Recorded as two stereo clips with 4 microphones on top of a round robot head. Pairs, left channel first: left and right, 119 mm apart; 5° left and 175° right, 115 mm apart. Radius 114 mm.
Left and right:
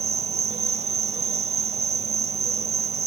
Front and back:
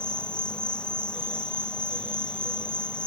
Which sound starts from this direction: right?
An insect, at 0.0 s.